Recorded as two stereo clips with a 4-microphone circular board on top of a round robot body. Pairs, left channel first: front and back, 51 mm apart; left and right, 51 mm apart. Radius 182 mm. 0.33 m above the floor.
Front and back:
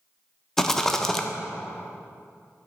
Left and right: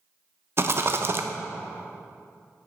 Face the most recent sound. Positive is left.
turn(degrees=-75)